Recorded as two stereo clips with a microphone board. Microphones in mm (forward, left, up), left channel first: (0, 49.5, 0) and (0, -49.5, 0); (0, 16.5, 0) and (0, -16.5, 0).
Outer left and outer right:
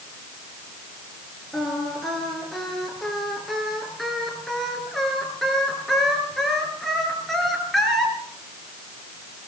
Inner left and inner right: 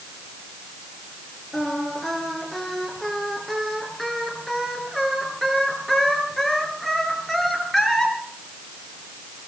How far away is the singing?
About 6 m.